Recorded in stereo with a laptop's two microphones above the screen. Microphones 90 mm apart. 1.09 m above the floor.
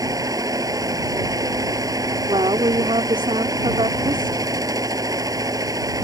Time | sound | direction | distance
0.0 | a fan | 40° right (ahead or behind) | ?
2.3 | a woman speaking | 65° right (ahead or behind) | ?